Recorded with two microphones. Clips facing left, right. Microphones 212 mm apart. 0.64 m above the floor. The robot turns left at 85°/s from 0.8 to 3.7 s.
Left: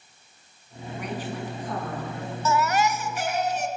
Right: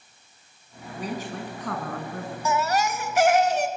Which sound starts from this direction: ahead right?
A woman speaking, at 0.9 s.